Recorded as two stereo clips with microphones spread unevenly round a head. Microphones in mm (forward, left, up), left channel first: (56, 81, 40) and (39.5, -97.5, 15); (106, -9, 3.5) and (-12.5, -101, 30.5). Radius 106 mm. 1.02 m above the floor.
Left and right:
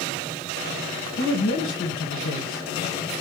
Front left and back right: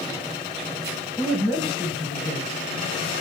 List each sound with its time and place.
1.2 s a woman speaking: 115° left, 1.3 m